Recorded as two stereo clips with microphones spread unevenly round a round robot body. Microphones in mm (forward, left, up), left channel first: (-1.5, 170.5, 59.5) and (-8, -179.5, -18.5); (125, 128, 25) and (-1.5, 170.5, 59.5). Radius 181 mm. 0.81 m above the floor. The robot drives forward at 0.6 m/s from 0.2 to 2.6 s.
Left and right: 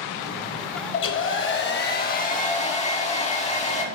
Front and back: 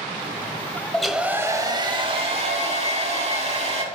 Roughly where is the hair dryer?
Left.